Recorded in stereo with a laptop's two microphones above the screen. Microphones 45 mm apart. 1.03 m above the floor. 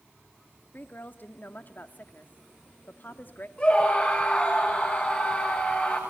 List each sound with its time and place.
0.7 s a woman speaking: 45° left (ahead or behind), 1.7 m
3.6 s a scream: 30° left (ahead or behind), 8 m